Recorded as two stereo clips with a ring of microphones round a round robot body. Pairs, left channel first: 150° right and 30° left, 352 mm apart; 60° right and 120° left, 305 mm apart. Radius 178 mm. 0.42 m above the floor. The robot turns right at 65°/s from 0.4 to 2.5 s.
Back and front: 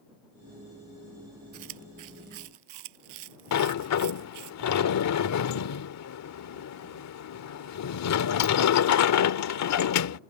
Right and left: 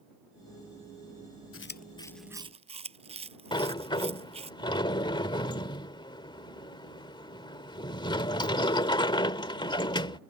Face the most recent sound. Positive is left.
turn(degrees=-130)